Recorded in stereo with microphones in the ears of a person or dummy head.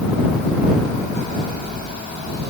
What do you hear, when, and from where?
Only background noise.